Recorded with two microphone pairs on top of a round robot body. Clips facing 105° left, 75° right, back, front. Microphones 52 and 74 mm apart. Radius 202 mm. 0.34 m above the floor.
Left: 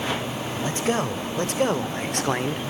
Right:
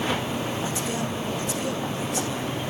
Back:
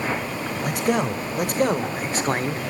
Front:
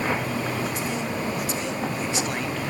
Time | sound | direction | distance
0.6 | a man speaking | 150° left | 3 m